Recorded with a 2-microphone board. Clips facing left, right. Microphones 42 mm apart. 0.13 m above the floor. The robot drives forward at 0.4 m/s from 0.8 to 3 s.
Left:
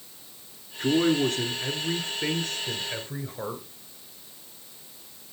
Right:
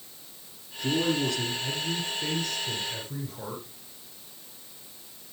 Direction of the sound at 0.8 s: 45° left (ahead or behind).